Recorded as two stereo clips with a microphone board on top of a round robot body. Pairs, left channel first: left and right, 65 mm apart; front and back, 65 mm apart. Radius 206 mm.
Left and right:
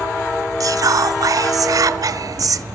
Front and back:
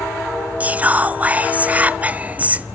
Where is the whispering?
115° right, 0.9 m.